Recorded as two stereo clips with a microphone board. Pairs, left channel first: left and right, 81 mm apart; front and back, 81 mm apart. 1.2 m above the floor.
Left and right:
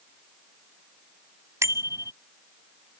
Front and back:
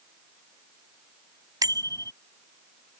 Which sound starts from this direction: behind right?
A bicycle bell, at 1.6 s.